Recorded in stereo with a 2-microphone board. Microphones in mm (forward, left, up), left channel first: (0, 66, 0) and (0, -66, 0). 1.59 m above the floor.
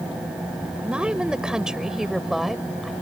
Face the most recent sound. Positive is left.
turn(degrees=0)  # may be behind; listen again after turning